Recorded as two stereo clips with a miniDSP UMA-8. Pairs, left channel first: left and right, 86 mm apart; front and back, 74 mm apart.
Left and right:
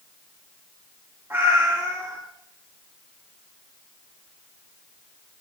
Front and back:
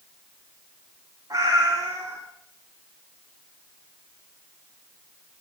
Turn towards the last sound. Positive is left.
turn(degrees=-145)